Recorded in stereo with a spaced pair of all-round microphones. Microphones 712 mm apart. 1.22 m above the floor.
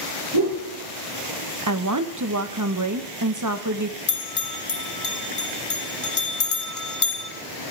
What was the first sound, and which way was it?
A whoosh, 40° right (ahead or behind).